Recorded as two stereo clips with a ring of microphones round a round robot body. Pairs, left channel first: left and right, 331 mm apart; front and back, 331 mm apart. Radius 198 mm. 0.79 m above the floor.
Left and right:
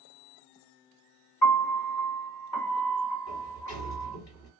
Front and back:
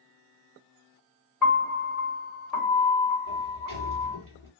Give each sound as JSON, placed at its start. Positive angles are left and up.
{"t": 1.4, "sound": "a piano", "azimuth_deg": 85, "distance_m": 2.5}
{"t": 3.3, "sound": "a sliding door", "azimuth_deg": 110, "distance_m": 3.0}